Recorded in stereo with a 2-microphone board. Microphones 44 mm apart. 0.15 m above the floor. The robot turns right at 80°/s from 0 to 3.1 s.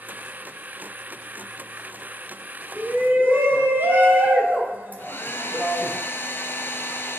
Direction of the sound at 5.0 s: 65° left (ahead or behind).